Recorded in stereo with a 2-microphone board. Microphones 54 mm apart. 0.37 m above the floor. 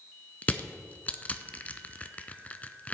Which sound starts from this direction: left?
Crushing, at 0.4 s.